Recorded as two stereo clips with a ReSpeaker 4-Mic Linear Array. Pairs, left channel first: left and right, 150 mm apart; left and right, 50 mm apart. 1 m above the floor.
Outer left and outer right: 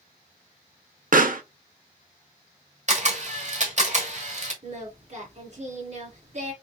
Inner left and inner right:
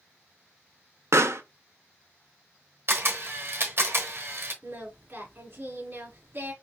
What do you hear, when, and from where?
1.1 s a pop: 65° right (ahead or behind), 0.6 m
2.9 s a camera shutter: 50° right (ahead or behind), 1.2 m
4.6 s singing: 50° right (ahead or behind), 1.9 m